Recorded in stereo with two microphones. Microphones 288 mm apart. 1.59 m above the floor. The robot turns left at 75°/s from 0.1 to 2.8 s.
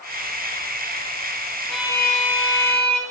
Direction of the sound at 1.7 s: 5° left.